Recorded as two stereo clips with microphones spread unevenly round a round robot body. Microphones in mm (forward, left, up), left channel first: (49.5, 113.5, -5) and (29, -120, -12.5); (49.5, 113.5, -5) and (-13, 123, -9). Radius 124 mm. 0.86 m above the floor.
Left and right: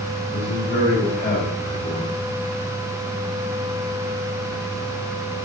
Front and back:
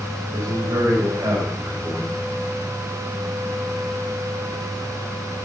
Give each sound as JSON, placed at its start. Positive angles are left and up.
{"t": 0.3, "sound": "a man speaking", "azimuth_deg": 140, "distance_m": 4.0}